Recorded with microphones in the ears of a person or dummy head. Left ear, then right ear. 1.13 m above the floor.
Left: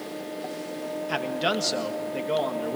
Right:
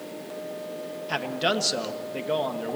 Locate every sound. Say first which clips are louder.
1.1 s a man speaking: right 1 dB; centre (ahead or behind), 1.5 m